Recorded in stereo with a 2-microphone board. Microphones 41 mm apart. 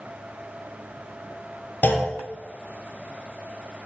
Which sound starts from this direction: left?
A clunk, at 1.8 s.